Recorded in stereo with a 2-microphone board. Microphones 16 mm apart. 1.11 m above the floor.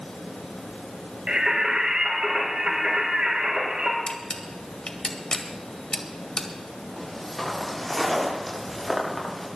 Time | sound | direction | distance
1.3 | singing | 75° right (ahead or behind) | 5.5 m
4.1 | a camera shutter | 55° left (ahead or behind) | 1.8 m
7.0 | footsteps | centre (ahead or behind) | 8.5 m